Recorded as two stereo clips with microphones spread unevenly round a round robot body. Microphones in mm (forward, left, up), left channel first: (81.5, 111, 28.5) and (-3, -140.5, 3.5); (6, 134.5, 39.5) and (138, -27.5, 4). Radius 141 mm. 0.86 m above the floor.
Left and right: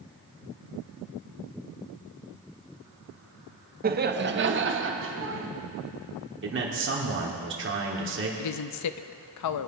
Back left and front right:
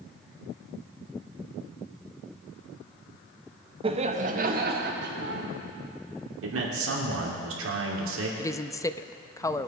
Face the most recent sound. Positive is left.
turn(degrees=50)